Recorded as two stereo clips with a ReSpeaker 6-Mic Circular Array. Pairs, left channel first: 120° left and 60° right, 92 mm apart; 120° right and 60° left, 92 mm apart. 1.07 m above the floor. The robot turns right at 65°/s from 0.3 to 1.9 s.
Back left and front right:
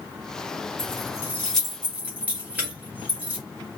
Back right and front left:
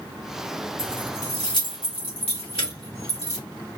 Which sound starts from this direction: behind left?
Keys jangling, at 0.8 s.